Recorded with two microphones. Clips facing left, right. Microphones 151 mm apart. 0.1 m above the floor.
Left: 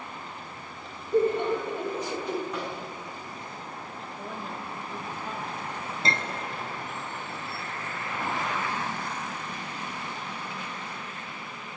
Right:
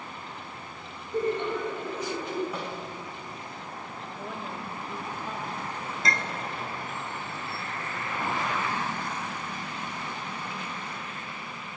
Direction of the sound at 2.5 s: 10° right (ahead or behind).